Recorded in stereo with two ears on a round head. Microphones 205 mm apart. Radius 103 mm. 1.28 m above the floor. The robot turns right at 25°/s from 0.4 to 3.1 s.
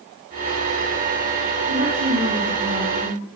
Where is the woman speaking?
125° right, 1.9 m; by 3.2 s 90° right, 1.9 m.